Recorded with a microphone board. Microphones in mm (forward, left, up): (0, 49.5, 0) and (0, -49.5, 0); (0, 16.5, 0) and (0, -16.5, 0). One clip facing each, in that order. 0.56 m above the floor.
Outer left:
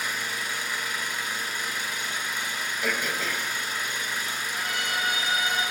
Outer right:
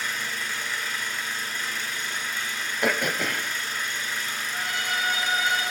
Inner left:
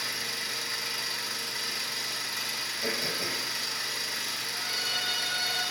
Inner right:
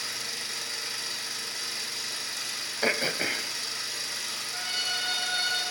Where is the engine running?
15° left (ahead or behind), 1.8 m.